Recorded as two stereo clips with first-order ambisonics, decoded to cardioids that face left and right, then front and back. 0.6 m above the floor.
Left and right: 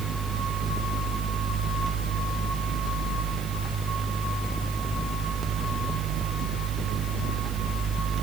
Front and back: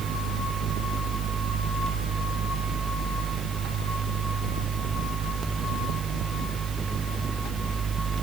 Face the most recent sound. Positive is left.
No sound to turn to.